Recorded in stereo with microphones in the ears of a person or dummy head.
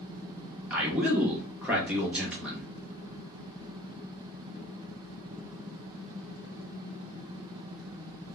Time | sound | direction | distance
0.7 | a man speaking | 10° right (ahead or behind) | 1.1 m